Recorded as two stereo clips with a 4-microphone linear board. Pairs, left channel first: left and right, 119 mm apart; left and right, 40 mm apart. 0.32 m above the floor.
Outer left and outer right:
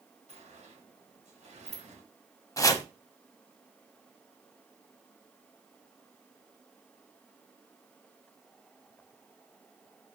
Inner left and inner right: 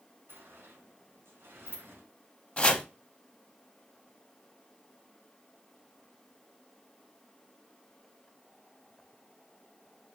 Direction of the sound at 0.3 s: 75° right (ahead or behind).